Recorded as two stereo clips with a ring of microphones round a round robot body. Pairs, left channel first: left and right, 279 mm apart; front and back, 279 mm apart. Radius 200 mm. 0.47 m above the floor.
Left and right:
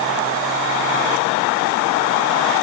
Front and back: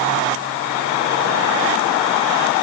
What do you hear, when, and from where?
Only background noise.